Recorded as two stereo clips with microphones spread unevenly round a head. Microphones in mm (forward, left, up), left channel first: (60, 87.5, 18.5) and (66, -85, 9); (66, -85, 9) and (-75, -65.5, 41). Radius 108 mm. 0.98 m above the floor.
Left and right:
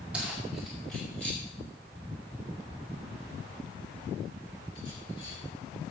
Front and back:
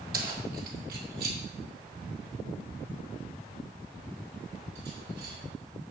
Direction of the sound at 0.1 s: 175° right.